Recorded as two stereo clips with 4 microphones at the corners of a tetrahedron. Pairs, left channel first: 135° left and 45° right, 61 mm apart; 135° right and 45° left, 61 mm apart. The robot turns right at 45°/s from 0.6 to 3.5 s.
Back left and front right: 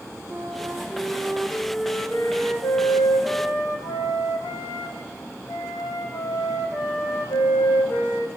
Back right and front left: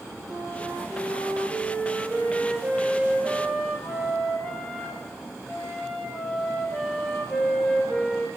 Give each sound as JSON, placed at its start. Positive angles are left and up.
{"t": 0.3, "sound": "a flute", "azimuth_deg": 15, "distance_m": 4.5}